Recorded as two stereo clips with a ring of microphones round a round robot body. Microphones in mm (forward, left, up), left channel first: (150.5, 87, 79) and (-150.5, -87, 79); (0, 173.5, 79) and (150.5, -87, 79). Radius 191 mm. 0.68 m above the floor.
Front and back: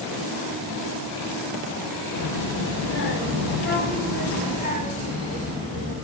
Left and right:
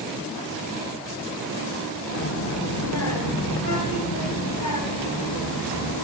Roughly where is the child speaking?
Left.